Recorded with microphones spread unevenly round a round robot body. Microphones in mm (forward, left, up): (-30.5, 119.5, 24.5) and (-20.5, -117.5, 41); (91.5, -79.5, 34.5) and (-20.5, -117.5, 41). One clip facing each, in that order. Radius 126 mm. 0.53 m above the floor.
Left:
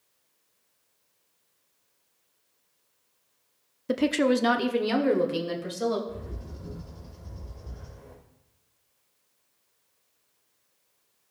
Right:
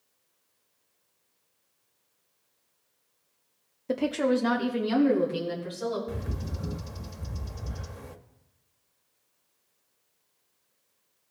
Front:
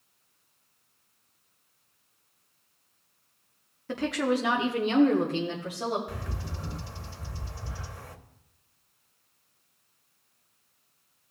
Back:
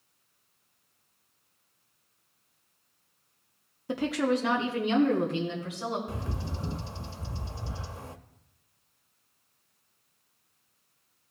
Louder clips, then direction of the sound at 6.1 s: Right 3 dB, back 2 dB; 95° right.